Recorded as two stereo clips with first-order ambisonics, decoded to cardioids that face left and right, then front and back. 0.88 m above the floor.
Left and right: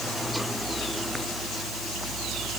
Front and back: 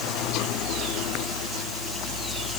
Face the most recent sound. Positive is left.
No sound to turn to.